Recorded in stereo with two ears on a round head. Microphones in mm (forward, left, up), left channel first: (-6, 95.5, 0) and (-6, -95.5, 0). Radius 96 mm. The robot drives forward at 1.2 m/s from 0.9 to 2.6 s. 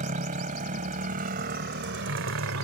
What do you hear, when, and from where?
0.0 s a motorcycle: 35° right (ahead or behind); by 2.6 s 70° right (ahead or behind)